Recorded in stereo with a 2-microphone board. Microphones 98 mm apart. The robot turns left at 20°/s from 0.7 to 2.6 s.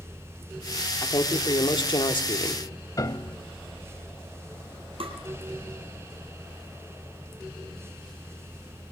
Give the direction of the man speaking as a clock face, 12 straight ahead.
8 o'clock.